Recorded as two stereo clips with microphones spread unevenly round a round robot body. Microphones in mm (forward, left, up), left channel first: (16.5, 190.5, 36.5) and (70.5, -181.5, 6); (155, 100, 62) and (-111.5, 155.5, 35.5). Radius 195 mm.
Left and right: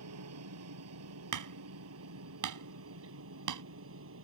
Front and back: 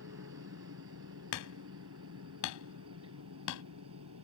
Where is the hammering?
45° right.